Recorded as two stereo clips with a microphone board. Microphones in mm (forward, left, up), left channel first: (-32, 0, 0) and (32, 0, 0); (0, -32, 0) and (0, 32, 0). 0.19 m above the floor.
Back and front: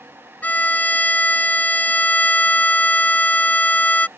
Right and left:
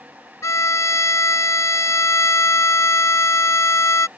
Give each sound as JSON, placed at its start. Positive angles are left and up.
{"t": 0.4, "sound": "a violin", "azimuth_deg": -120}